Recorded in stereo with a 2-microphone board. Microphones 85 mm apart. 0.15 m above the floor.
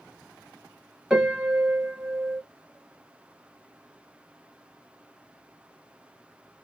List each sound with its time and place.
1.1 s a piano: 5° right (ahead or behind), 1.5 m